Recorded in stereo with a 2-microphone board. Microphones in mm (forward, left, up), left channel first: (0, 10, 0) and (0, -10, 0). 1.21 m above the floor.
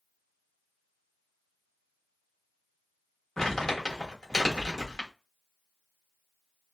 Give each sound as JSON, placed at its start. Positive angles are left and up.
{"t": 3.4, "sound": "crumpling", "side_deg": 30, "distance_m": 0.9}